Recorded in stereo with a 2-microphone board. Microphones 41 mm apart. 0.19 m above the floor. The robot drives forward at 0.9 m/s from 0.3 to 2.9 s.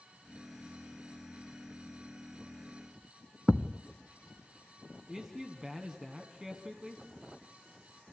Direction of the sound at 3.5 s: 5° right (ahead or behind).